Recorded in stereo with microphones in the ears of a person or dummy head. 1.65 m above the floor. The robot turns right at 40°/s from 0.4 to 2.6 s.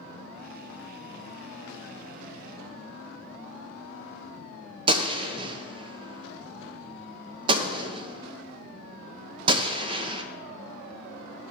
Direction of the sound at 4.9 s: 30° right (ahead or behind).